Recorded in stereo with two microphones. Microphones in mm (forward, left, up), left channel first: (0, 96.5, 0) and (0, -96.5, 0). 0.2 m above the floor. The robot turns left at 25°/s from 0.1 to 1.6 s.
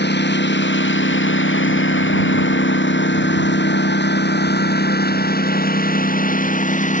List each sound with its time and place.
0.0 s a lawn mower: 65° left (ahead or behind); by 7.0 s 40° left (ahead or behind)